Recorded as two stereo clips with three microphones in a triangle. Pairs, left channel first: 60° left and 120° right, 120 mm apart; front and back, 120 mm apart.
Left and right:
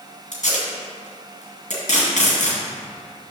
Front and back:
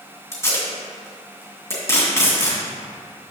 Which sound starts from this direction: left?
Tape being pulled, at 0.3 s.